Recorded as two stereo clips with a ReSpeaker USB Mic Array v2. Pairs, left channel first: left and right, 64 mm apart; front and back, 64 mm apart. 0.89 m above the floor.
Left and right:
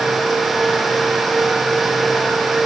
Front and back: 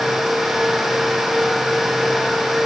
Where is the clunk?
No clunk in this recording.